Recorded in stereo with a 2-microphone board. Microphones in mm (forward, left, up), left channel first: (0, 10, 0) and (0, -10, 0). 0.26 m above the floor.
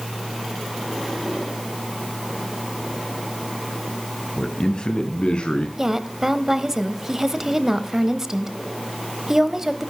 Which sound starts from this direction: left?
A man speaking, at 4.4 s.